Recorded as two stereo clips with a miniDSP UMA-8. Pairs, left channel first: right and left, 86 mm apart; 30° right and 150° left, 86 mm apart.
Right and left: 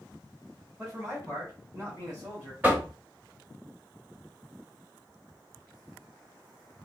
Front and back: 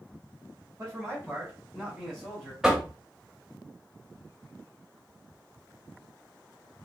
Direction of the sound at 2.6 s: 80° left.